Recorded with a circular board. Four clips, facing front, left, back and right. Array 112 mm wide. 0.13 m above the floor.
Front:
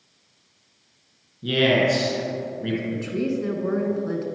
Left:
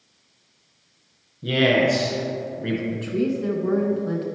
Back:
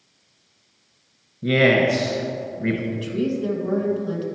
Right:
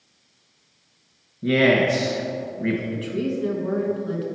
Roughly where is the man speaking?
Behind right.